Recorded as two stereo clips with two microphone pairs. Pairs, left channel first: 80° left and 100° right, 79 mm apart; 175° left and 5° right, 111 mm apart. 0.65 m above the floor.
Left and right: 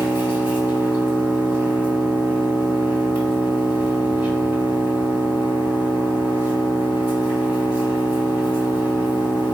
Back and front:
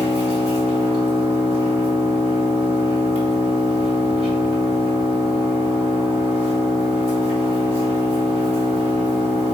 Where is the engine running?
35° right, 1.3 m.